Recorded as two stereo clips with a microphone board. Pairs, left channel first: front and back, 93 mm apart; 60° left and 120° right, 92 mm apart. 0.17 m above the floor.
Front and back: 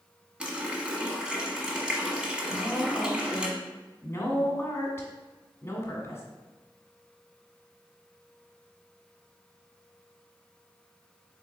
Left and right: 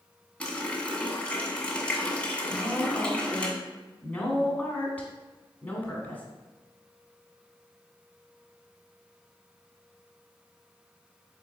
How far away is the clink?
I don't hear a clink.